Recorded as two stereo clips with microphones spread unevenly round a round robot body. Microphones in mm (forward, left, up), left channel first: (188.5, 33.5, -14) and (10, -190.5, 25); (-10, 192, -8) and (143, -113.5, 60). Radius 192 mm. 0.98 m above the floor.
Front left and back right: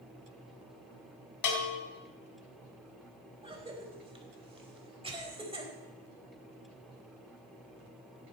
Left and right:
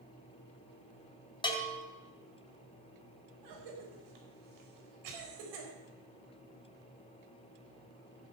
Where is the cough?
55° right, 4.5 m.